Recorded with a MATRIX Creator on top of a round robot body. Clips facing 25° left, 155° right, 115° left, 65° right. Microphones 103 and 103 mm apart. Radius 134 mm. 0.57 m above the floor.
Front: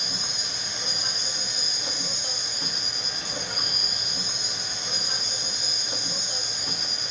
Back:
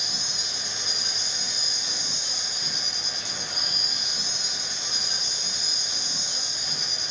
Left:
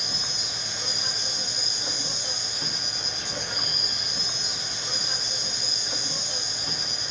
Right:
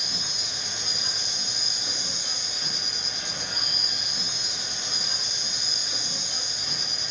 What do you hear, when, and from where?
0.0 s an insect: 65° left, 4.5 m